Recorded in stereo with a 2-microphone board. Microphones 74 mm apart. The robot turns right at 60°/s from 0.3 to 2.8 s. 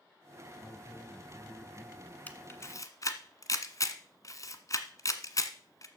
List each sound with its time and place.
0.6 s a man speaking: 20° left (ahead or behind), 1.6 m; by 2.2 s 20° right (ahead or behind), 1.6 m
2.3 s a camera shutter: 20° left (ahead or behind), 1.3 m; by 5.9 s 45° left (ahead or behind), 1.3 m